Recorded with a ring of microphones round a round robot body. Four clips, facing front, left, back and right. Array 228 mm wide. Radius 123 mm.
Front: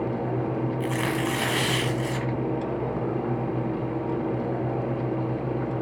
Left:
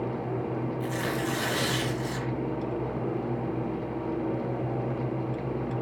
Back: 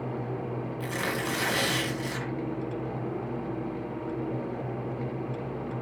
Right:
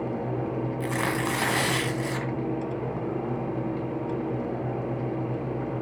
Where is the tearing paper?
75° right, 1.7 m.